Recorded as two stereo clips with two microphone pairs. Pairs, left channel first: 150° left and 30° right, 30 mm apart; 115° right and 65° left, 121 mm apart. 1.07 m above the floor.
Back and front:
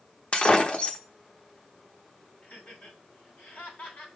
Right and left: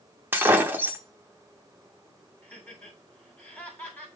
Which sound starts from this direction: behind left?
Breaking glass, at 0.3 s.